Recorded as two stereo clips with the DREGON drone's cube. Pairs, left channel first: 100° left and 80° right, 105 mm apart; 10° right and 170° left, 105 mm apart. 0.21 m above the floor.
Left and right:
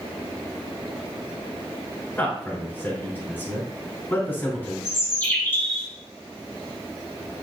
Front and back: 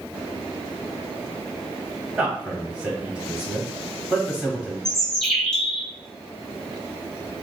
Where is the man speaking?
110° left, 1.1 m.